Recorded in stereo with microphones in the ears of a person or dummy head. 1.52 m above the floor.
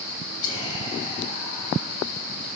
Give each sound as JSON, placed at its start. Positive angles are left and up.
{"t": 0.4, "sound": "whispering", "side_deg": 25, "distance_m": 2.5}